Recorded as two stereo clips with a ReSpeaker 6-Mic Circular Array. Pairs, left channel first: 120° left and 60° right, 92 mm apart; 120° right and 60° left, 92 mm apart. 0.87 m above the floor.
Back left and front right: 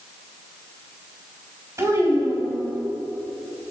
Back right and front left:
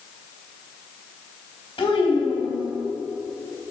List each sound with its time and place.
1.8 s a child speaking: 115° right, 4 m